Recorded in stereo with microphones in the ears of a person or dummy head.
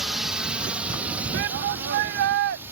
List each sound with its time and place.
0.0 s a drone: 5° right (ahead or behind); by 2.7 s 15° right (ahead or behind)
1.3 s a shout: 60° right (ahead or behind)